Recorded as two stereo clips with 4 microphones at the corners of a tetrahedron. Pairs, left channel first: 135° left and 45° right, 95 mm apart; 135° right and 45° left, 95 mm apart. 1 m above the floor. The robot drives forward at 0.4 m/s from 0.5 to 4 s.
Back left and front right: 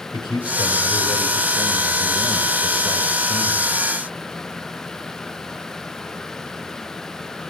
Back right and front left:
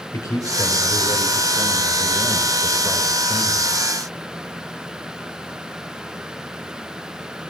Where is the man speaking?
170° left, 3.5 m; by 3.7 s 175° left, 4.5 m.